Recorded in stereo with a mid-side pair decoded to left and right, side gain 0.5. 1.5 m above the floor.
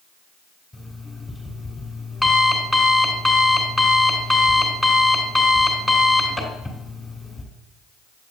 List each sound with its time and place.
0.7 s an alarm clock: straight ahead, 3.5 m